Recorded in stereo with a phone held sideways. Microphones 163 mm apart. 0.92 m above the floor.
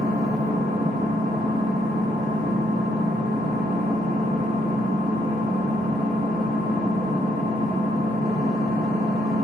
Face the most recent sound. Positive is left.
turn(degrees=-80)